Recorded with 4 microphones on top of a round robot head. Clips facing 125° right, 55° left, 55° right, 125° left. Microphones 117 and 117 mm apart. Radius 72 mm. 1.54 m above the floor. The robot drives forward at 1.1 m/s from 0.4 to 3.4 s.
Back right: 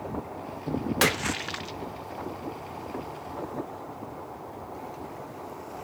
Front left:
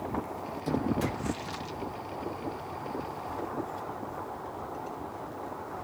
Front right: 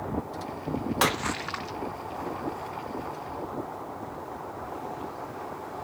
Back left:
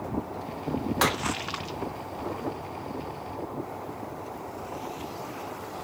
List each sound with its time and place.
1.0 s a splash: 140° right; by 1.8 s 160° right